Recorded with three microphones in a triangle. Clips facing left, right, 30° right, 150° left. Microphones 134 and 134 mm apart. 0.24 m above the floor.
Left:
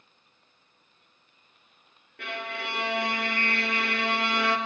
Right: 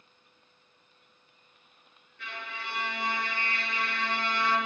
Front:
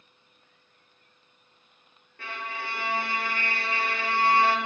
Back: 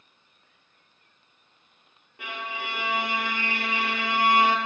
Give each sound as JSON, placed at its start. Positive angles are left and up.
{"t": 2.2, "sound": "a violin", "azimuth_deg": 75, "distance_m": 0.8}